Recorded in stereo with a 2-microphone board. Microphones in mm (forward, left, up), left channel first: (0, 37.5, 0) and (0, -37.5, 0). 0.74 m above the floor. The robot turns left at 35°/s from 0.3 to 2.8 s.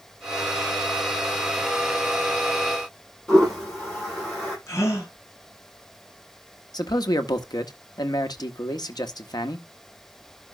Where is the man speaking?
60° left (ahead or behind), 1.2 m.